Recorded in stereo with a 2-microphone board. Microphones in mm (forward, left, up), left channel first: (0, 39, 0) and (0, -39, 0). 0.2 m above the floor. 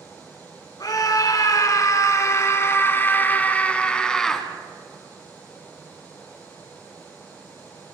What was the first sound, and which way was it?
A scream, 55° left (ahead or behind).